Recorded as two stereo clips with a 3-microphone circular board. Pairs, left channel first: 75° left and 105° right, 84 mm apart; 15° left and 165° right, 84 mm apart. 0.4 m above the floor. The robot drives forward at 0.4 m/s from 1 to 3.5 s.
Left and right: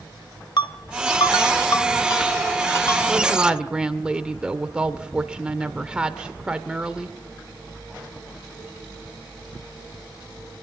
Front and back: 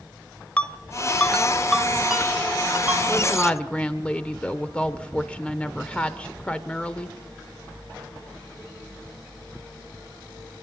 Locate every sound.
0.6 s a ringtone: 85° left, 1.1 m; by 3.0 s 125° left, 1.4 m
3.1 s a woman speaking: 30° right, 1.1 m; by 7.2 s 40° right, 1.1 m